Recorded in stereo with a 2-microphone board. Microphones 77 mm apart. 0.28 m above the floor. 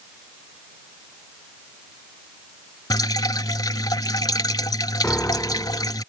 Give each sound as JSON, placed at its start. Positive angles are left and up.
{"t": 2.9, "sound": "dripping", "side_deg": 60}
{"t": 5.0, "sound": "a piano", "side_deg": 20}